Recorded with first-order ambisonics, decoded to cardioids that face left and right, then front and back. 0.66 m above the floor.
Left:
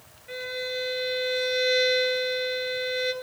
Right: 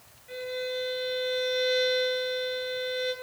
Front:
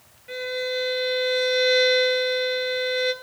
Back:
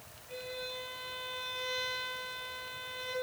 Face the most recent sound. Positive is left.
turn(degrees=20)